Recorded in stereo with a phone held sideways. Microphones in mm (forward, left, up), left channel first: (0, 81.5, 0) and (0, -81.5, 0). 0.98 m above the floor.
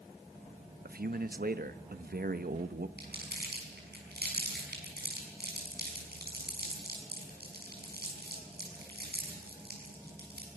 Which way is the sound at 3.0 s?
85° right.